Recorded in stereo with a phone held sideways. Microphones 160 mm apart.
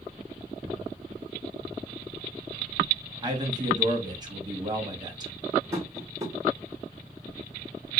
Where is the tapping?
20° right (ahead or behind), 1.0 m.